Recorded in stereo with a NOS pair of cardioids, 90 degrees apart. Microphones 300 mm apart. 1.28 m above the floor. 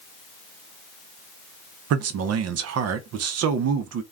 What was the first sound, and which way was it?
A man speaking, 60° right.